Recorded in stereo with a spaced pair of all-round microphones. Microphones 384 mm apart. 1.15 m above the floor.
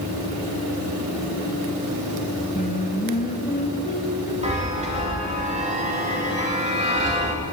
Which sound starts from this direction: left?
Singing, at 2.5 s.